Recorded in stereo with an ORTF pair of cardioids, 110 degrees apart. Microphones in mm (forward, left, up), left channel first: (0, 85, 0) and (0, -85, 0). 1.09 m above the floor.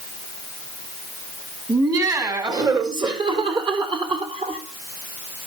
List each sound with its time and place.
1.7 s laughter: 20° right, 5 m; by 4.6 s 35° right, 3.5 m